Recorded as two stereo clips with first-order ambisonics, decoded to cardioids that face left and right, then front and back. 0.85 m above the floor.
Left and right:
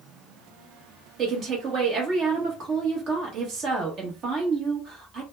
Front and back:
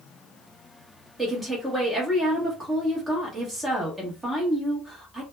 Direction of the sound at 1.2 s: 110° right.